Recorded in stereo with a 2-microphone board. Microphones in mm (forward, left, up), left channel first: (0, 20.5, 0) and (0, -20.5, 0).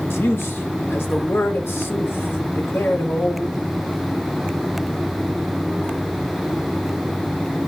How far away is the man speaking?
About 1.3 m.